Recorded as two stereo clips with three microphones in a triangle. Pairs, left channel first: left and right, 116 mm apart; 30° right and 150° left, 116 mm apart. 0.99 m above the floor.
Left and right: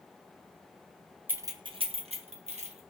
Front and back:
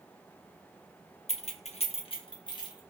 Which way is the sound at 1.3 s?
15° right.